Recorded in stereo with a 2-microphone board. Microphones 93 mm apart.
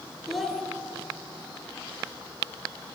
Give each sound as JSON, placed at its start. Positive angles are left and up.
{"t": 0.3, "sound": "a child speaking", "side_deg": 0, "distance_m": 1.2}